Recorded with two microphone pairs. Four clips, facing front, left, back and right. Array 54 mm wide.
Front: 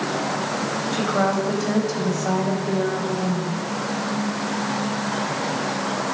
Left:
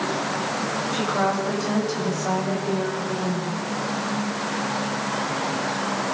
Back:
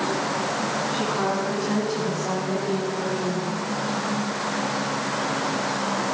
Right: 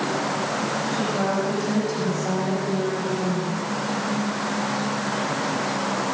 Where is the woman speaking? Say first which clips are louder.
Left 2 dB, front 6 dB; 20° left, 8.5 m; by 3.6 s 35° left, 9.5 m.